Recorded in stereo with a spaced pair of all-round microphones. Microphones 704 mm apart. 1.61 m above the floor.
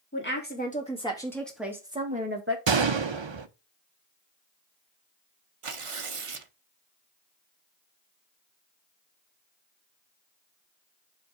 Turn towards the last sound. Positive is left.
turn(degrees=-45)  # may be behind; listen again after turning